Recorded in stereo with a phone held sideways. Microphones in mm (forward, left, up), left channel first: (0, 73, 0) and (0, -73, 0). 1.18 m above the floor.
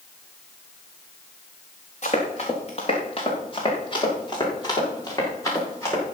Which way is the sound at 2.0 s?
55° left (ahead or behind).